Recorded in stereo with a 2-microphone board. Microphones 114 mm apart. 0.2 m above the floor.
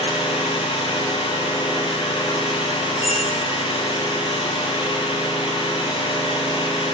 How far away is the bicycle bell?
About 3 m.